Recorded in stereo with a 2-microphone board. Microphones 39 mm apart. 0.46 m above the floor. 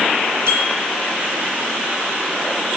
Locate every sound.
0.5 s a bicycle bell: 80° right, 7.5 m